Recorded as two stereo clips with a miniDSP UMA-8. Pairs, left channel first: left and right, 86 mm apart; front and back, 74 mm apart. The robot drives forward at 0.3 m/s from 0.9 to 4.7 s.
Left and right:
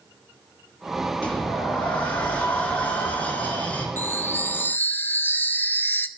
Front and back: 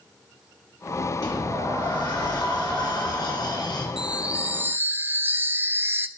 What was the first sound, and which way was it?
A sliding door, 15° left.